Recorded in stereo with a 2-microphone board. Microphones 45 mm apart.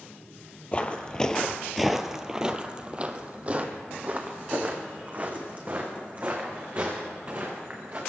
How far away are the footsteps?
About 0.9 m.